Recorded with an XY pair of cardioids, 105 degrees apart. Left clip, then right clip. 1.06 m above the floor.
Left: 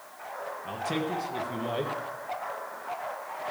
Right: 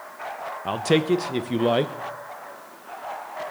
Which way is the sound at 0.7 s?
70° right.